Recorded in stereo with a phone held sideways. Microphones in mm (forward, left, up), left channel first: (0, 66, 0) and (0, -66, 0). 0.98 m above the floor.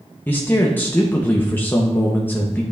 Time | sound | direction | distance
0.3 | a man speaking | 15° left (ahead or behind) | 0.8 m